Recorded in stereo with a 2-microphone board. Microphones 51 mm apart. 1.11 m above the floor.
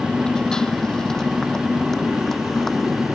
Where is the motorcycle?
15° left (ahead or behind); by 3.1 s 5° left (ahead or behind).